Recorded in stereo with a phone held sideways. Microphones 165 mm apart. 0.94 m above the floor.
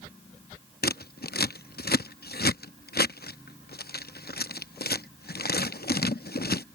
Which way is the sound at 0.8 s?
75° left (ahead or behind).